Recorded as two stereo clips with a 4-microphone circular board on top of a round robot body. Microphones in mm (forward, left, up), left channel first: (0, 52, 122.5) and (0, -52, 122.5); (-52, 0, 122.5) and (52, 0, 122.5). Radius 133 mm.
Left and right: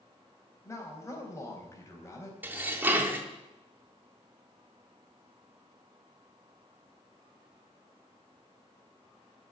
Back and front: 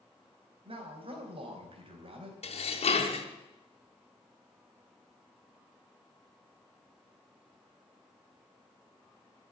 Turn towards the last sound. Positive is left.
turn(degrees=-165)